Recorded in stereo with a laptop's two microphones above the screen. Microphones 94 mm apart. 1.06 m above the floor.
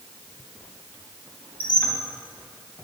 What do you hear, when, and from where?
1.6 s a squeak: 20° left (ahead or behind), 0.7 m